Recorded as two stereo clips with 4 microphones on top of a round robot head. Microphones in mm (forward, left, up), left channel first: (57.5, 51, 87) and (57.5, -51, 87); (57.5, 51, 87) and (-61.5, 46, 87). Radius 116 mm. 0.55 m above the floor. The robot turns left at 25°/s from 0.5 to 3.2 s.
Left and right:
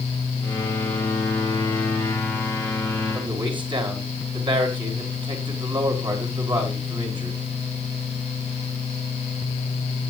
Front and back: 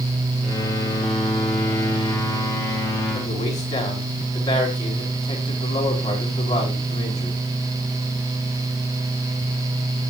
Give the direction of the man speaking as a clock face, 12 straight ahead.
2 o'clock.